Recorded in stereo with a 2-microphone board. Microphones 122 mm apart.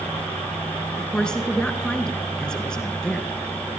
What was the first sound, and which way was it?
A woman speaking, 5° left (ahead or behind).